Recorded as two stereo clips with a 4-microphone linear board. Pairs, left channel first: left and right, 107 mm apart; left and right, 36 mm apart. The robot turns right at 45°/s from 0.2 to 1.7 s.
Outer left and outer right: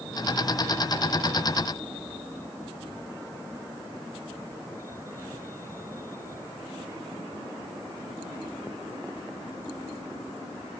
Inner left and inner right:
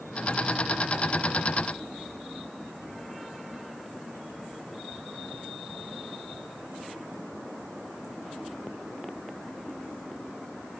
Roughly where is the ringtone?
No ringtone in this recording.